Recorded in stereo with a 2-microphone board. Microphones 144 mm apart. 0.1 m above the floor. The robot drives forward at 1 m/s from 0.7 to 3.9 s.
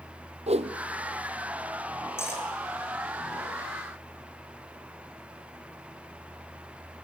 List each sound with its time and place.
0.5 s a whoosh: 50° right (ahead or behind), 0.9 m; by 0.8 s 45° right (ahead or behind), 1.0 m
2.2 s cutlery clinking: 15° left (ahead or behind), 3.5 m